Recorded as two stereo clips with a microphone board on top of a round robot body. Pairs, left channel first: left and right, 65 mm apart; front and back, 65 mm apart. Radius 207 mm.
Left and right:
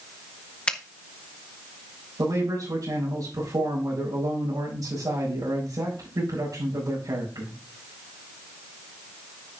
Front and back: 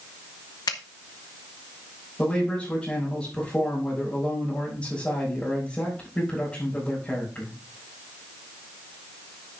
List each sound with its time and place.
0.7 s a finger snap: 15° left, 0.7 m
2.2 s a man speaking: 70° right, 4.5 m